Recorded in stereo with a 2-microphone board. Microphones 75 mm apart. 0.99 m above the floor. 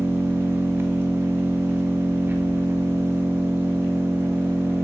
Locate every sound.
0.0 s an engine running: 30° right (ahead or behind), 0.8 m